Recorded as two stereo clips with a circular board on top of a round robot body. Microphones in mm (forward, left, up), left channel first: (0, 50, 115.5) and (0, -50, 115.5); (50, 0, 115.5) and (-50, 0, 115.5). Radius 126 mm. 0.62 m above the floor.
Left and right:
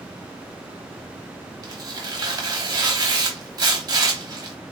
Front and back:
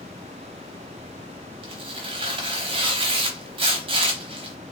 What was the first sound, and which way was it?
Tearing paper, 145° right.